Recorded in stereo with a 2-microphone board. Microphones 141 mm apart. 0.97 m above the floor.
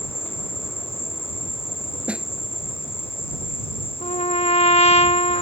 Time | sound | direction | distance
0.0 | an insect | 40° left (ahead or behind) | ?
2.1 | a snare drum | 10° right (ahead or behind) | ?
4.0 | a trumpet | 45° left (ahead or behind) | ?